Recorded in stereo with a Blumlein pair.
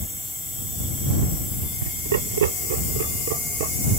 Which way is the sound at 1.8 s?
65° right.